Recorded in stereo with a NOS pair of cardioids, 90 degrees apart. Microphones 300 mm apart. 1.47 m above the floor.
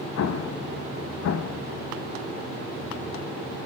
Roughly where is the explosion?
Ahead left.